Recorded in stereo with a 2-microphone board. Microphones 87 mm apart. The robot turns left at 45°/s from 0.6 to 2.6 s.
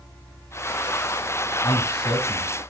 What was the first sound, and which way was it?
A man speaking, 95° left.